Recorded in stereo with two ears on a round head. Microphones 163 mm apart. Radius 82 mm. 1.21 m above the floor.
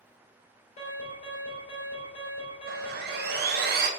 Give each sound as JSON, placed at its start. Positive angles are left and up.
{"t": 0.8, "sound": "an alarm", "side_deg": 40, "distance_m": 3.5}
{"t": 2.7, "sound": "sawing", "side_deg": -55, "distance_m": 0.8}